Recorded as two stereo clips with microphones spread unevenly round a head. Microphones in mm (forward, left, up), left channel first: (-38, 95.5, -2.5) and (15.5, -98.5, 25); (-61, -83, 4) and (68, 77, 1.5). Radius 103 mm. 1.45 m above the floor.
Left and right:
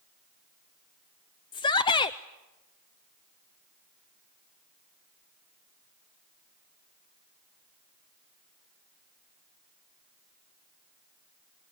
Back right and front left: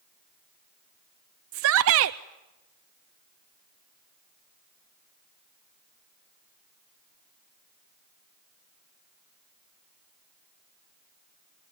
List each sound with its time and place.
1.5 s a shout: 40° left, 0.5 m